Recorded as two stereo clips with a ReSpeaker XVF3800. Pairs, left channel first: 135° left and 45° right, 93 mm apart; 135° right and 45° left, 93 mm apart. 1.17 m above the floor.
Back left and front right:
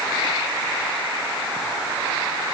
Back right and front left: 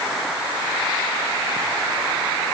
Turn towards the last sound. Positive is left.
No sound to turn to.